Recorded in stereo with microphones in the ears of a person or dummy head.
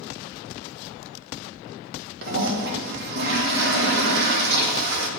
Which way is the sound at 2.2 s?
55° right (ahead or behind).